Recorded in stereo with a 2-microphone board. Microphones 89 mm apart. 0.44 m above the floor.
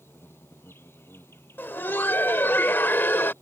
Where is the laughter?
25° left (ahead or behind).